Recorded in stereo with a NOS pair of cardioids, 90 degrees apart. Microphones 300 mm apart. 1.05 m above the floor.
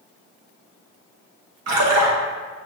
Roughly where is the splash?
Ahead right.